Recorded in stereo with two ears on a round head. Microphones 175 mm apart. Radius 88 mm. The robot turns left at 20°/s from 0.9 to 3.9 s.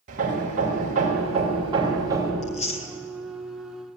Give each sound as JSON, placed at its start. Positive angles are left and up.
{"t": 0.1, "sound": "hammering", "side_deg": -45, "distance_m": 5.0}
{"t": 2.4, "sound": "chewing", "side_deg": 40, "distance_m": 2.5}